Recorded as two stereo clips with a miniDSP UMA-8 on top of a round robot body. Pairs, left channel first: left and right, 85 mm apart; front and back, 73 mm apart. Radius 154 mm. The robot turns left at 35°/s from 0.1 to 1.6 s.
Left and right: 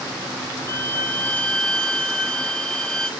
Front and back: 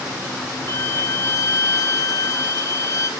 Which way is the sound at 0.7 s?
45° left.